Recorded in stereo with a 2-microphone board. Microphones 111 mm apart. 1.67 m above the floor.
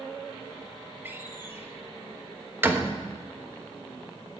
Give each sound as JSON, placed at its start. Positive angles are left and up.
{"t": 1.1, "sound": "a door slam", "side_deg": -20, "distance_m": 1.1}